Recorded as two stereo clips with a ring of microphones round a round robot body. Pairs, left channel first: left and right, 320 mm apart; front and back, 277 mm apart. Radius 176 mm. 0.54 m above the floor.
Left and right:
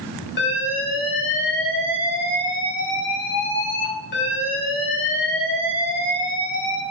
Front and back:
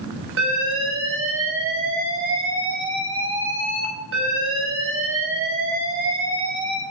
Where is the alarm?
145° left, 4 m.